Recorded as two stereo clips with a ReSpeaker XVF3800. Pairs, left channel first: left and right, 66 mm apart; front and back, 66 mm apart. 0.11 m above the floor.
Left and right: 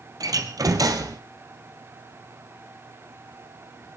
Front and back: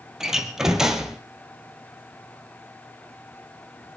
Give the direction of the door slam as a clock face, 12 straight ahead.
3 o'clock.